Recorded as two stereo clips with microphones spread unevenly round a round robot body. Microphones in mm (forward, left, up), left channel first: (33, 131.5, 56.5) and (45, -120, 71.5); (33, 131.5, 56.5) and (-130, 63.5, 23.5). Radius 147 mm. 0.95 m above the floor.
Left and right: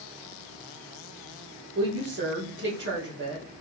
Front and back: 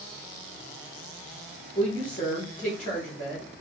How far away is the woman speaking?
About 2.5 m.